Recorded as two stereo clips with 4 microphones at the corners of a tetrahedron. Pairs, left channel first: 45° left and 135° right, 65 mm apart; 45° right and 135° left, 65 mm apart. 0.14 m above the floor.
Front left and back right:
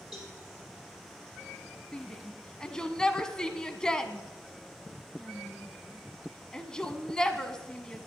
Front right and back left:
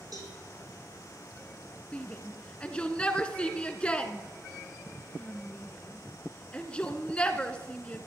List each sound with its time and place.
0.1 s a cowbell: 140° left, 4 m
1.9 s a shout: 15° right, 1.0 m